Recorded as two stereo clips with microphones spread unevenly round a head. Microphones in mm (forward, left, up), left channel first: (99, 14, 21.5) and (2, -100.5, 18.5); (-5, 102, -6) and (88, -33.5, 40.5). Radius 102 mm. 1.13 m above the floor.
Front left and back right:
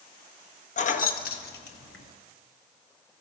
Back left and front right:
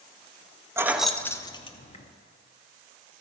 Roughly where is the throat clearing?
I don't hear throat clearing.